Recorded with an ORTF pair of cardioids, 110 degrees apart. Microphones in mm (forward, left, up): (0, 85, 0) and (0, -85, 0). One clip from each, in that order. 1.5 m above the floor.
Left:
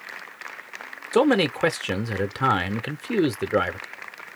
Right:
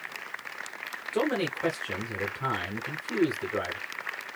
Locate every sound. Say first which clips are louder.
1.1 s a man speaking: left 9 dB; 60° left, 0.7 m